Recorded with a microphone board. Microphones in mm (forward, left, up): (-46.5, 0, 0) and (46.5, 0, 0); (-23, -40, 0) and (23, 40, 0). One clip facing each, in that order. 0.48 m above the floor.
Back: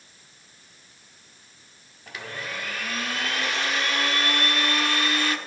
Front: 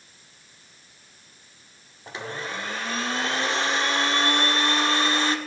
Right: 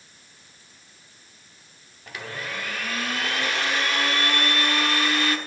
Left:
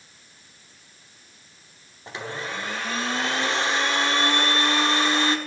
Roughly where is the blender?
Ahead left.